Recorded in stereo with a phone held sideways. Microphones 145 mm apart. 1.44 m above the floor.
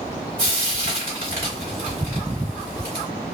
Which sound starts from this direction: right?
Frying, at 0.4 s.